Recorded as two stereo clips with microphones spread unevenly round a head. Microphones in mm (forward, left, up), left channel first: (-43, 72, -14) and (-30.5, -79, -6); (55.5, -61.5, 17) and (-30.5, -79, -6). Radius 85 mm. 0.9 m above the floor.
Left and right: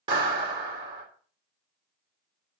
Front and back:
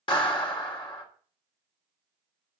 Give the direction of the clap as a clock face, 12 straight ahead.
1 o'clock.